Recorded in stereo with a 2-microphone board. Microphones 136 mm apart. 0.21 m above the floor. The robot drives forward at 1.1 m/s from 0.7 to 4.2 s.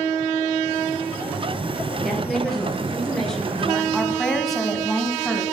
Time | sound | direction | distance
2.0 | a woman speaking | centre (ahead or behind) | 4.5 m
3.9 | a woman speaking | centre (ahead or behind) | 2.0 m